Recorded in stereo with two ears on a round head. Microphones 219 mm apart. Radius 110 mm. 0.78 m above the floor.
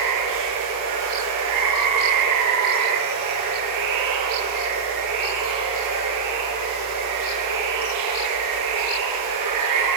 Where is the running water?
85° right, 9 m.